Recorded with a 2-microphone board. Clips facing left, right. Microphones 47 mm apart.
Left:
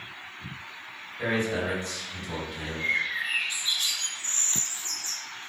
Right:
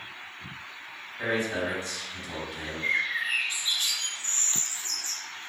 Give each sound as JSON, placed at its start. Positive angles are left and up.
{"t": 1.2, "sound": "a man speaking", "side_deg": -5, "distance_m": 1.9}
{"t": 2.8, "sound": "a bird", "side_deg": -30, "distance_m": 1.0}